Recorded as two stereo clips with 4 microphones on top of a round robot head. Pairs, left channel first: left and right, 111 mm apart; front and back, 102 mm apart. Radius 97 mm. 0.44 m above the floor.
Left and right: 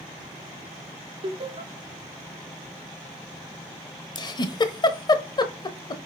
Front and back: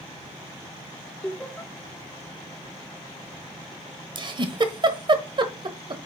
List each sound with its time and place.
1.2 s laughter: 80° right, 1.7 m
4.2 s a giggle: 140° left, 1.2 m